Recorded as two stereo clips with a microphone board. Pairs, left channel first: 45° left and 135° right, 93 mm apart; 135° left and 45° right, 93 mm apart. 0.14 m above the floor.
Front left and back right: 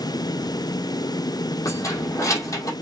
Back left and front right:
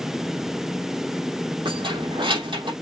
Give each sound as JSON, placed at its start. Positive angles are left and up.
{"t": 1.6, "sound": "keys jangling", "azimuth_deg": -10, "distance_m": 3.0}